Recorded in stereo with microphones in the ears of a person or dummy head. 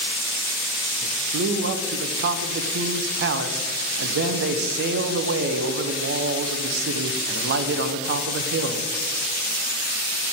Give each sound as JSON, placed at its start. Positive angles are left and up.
{"t": 1.0, "sound": "a man speaking", "side_deg": -70, "distance_m": 0.7}